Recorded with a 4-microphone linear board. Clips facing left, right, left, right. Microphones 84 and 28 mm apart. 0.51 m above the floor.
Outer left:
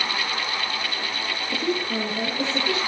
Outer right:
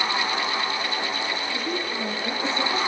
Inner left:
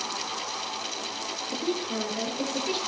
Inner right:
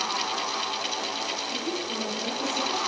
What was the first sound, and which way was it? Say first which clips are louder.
A woman speaking: outer left 3 dB, inner left 1 dB; 80° left.